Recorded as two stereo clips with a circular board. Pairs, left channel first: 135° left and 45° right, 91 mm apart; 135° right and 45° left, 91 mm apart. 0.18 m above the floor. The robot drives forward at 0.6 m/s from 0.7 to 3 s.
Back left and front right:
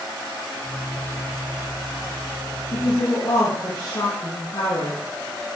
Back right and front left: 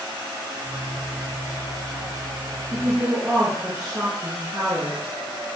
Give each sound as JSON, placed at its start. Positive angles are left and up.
{"t": 2.7, "sound": "a woman speaking", "azimuth_deg": 105, "distance_m": 3.5}